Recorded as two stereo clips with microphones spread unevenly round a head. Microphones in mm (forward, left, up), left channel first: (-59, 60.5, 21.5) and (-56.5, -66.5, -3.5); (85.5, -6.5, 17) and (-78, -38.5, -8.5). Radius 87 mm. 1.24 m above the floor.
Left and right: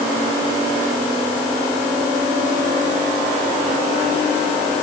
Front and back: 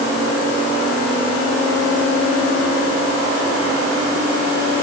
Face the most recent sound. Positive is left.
No sound to turn to.